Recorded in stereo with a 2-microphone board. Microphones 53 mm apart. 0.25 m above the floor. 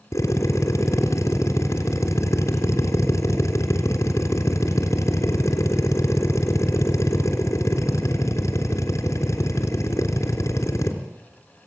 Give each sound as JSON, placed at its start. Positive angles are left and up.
{"t": 0.1, "sound": "a drill", "side_deg": 70, "distance_m": 3.5}